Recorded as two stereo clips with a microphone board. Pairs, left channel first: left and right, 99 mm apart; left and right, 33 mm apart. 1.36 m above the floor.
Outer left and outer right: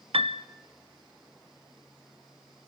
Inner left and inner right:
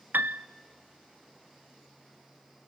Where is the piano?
70° right (ahead or behind), 0.5 m.